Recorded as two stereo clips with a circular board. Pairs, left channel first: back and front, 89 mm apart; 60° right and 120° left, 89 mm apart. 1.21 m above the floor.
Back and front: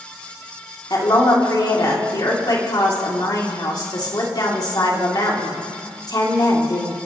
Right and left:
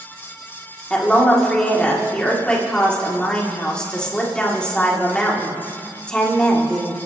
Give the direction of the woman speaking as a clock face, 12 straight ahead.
5 o'clock.